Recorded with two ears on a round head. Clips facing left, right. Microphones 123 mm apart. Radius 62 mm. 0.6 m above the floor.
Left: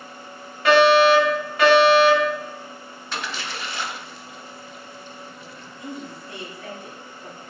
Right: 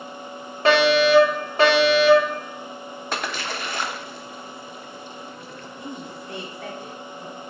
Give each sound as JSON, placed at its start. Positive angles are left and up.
{"t": 0.7, "sound": "a fire alarm", "side_deg": -30, "distance_m": 2.5}
{"t": 3.1, "sound": "a splash", "side_deg": -45, "distance_m": 0.8}
{"t": 5.8, "sound": "a woman speaking", "side_deg": -50, "distance_m": 2.5}